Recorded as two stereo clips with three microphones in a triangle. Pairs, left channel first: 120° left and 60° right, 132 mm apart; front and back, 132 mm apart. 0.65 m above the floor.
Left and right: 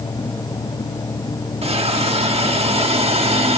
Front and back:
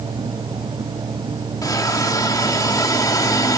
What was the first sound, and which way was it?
A hiss, 55° right.